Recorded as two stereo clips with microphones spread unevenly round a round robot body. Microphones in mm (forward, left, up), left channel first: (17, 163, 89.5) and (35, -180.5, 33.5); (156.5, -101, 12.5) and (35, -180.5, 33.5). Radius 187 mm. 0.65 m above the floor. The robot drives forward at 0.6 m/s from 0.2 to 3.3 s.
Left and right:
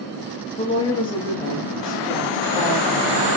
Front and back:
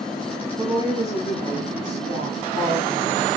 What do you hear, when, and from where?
0.6 s a woman speaking: 170° left, 0.8 m; by 3.4 s straight behind, 2 m